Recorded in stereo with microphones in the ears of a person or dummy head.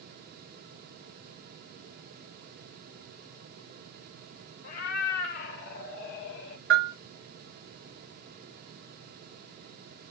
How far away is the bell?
About 1.2 m.